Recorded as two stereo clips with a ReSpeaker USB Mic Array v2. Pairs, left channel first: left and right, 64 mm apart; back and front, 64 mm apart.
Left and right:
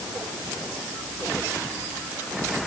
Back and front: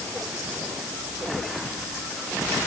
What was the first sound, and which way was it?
Only background noise.